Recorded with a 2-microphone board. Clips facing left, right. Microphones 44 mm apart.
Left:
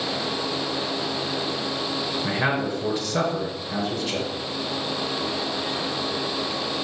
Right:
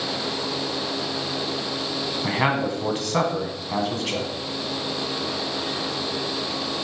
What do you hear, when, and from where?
2.2 s a man speaking: 55° right (ahead or behind), 2 m